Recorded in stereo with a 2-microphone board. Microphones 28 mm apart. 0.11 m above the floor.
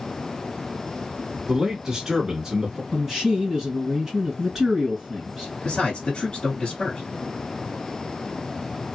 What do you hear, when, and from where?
1.5 s a man speaking: 15° right (ahead or behind), 1.1 m
2.9 s a man speaking: 15° right (ahead or behind), 1.9 m
5.7 s a man speaking: 40° left (ahead or behind), 1.5 m